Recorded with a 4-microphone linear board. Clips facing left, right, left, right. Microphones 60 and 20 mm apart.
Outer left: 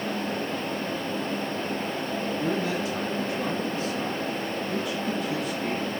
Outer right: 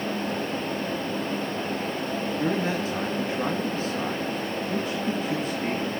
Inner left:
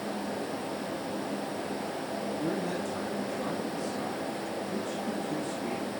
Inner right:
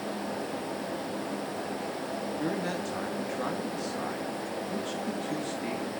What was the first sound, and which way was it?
A man speaking, 35° right (ahead or behind).